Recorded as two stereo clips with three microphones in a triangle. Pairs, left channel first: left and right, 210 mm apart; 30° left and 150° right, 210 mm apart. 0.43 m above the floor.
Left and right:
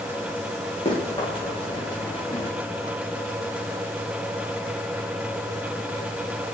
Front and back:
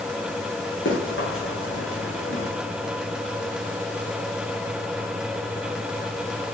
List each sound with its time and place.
0.8 s running footsteps: 30° left, 4.5 m; by 2.5 s 20° left, 4.5 m